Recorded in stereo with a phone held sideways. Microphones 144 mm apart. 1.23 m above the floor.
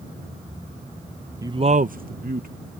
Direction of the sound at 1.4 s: 20° right (ahead or behind).